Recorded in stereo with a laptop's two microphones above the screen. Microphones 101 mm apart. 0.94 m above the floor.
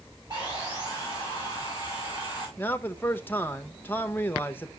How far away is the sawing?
About 6.5 m.